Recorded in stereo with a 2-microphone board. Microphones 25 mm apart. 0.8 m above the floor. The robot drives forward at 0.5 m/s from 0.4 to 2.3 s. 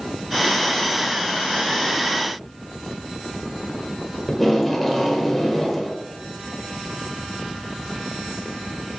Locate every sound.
4.3 s tape being pulled: centre (ahead or behind), 1.3 m